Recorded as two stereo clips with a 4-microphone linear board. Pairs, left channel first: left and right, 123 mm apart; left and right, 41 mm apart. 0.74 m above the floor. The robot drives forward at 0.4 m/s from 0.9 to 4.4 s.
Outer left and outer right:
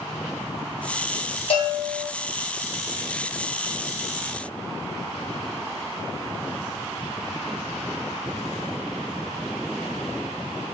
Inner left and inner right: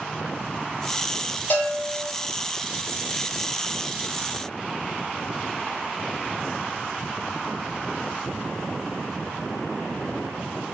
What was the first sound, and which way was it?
A bell, 50° left (ahead or behind).